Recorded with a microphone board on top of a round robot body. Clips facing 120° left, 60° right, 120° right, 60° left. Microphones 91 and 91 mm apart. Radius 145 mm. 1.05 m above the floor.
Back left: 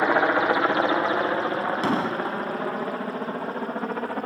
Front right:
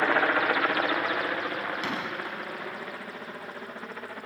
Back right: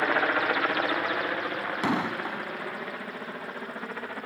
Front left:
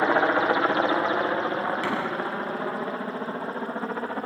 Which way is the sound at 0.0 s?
75° left.